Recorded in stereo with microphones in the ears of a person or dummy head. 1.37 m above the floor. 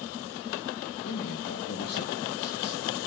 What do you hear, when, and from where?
1.0 s a man speaking: 50° left (ahead or behind), 3 m